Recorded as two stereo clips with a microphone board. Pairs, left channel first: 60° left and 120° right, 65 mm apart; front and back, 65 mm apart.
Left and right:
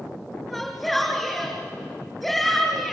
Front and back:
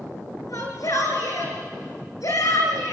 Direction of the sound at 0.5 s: 30° right.